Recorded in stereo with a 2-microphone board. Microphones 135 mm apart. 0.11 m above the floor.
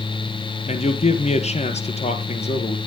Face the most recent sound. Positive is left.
turn(degrees=55)  # may be behind; listen again after turning